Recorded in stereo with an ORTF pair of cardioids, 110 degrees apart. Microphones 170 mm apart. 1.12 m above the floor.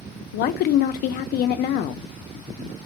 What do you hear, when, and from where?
0.3 s a woman speaking: 65° left, 0.6 m